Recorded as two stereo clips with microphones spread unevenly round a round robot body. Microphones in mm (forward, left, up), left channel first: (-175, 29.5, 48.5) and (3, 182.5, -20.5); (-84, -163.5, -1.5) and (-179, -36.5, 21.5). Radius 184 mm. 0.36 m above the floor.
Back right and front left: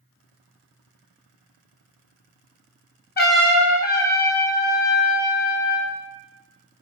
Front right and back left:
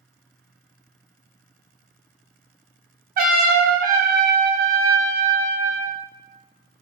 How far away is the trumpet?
About 0.8 m.